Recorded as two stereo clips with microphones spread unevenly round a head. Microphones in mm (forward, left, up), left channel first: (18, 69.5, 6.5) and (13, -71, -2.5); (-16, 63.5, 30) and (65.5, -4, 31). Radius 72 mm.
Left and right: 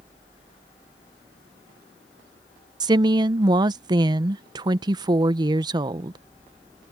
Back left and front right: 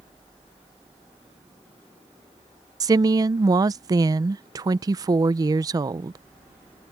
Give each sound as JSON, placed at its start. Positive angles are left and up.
{"t": 2.8, "sound": "a woman speaking", "azimuth_deg": -60}